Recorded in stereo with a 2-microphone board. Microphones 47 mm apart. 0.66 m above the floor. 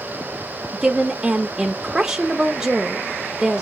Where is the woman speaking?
15° right (ahead or behind), 0.6 m.